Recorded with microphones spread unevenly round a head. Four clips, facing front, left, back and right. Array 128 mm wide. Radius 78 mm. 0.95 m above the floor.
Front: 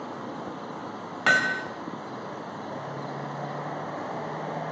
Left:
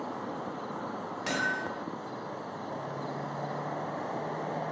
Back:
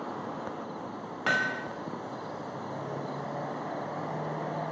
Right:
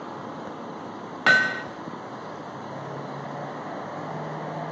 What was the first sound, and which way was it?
Hammering, 60° right.